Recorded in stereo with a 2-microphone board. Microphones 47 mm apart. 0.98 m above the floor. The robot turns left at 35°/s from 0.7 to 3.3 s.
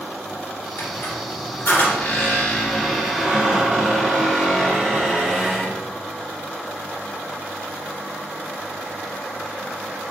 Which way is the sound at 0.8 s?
85° left.